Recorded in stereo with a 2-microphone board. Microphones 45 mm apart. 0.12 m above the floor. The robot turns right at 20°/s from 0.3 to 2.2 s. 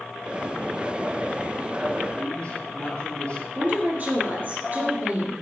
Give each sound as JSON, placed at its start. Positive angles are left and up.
{"t": 2.1, "sound": "a man speaking", "side_deg": 20, "distance_m": 3.0}
{"t": 3.5, "sound": "a woman speaking", "side_deg": -40, "distance_m": 2.5}